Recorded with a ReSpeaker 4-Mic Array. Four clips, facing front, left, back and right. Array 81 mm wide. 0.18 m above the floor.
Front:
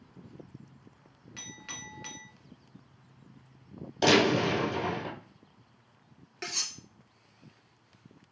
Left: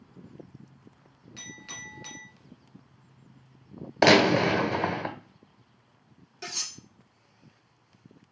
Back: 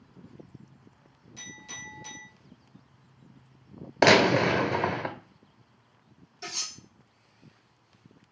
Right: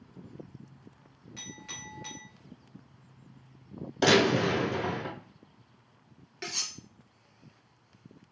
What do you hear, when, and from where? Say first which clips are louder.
1.4 s a clink: left 2 dB, back 1 dB; 10° left, 1.7 m
4.0 s a gunshot: left 4 dB, back 4 dB; 145° left, 0.8 m
6.4 s cutlery clinking: even, front 1 dB; 30° right, 2.0 m